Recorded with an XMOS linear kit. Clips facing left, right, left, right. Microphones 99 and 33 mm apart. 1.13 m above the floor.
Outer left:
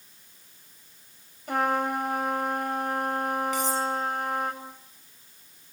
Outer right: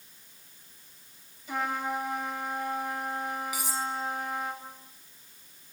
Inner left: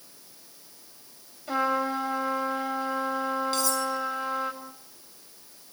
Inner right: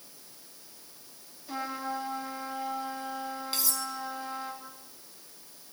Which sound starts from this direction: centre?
Cutlery clinking, at 3.5 s.